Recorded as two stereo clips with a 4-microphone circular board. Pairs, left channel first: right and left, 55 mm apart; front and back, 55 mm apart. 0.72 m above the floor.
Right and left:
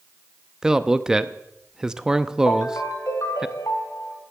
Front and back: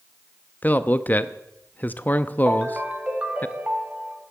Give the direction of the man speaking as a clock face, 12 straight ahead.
11 o'clock.